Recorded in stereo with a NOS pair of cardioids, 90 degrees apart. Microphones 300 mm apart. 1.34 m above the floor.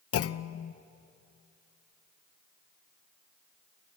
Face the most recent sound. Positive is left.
turn(degrees=55)